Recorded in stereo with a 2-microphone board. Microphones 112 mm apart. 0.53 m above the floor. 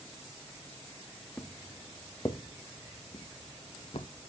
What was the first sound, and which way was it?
Footsteps, 10° left (ahead or behind).